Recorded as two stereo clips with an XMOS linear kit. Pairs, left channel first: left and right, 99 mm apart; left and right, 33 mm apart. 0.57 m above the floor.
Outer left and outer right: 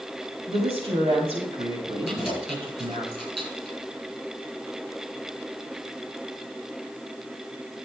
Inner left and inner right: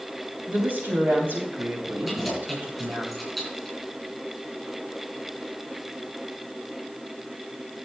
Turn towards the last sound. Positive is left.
turn(degrees=-10)  # may be behind; listen again after turning